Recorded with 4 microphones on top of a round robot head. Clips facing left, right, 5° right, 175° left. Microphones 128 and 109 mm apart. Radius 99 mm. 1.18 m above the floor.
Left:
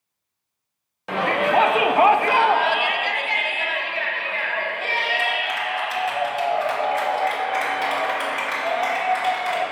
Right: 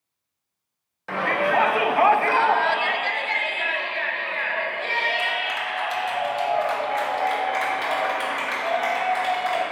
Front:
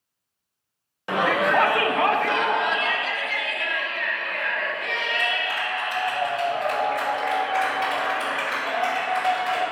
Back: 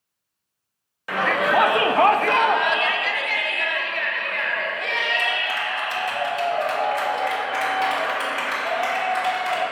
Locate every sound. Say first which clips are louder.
1.1 s a shout: left 2 dB, even; 35° left, 0.5 m; by 9.6 s 175° left, 4.5 m